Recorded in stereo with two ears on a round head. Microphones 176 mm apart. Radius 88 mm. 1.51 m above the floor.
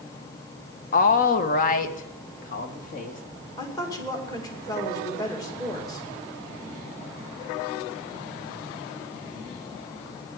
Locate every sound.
0.9 s a woman speaking: 45° left (ahead or behind), 0.9 m
3.6 s a woman speaking: 20° left (ahead or behind), 2.5 m